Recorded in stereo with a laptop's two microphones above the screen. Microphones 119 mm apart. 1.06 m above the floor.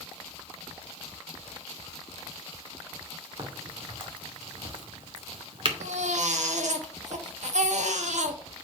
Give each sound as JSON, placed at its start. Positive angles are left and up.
{"t": 3.4, "sound": "a crack", "side_deg": -45, "distance_m": 2.5}
{"t": 5.8, "sound": "a baby crying", "side_deg": -75, "distance_m": 1.2}